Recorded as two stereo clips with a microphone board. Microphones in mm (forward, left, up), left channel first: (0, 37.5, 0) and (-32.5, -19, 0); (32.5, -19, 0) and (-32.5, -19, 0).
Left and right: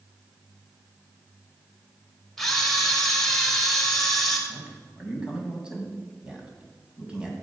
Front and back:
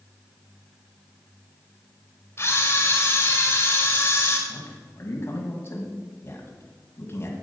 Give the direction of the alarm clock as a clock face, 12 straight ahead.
No alarm clock in this recording.